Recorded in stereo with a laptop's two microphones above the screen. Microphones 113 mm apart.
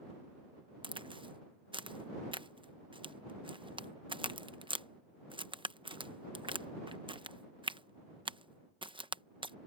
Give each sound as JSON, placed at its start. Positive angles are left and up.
{"t": 0.8, "sound": "a crack", "side_deg": -45}